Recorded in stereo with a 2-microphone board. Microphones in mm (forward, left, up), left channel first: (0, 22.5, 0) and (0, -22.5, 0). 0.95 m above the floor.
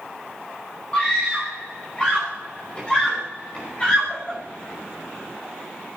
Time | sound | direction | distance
0.9 | a scream | 25° left (ahead or behind) | 5 m